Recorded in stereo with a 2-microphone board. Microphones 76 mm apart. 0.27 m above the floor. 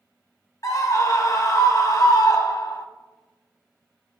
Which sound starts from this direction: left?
A scream, at 0.6 s.